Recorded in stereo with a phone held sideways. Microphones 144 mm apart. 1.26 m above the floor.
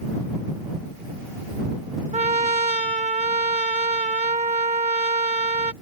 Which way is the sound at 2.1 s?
55° right (ahead or behind).